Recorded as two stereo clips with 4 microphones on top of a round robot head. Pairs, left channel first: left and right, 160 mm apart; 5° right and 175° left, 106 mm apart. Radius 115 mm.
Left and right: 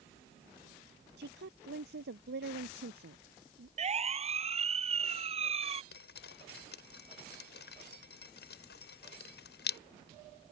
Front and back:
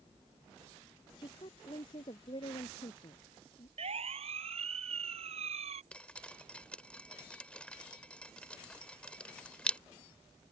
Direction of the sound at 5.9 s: 75° left.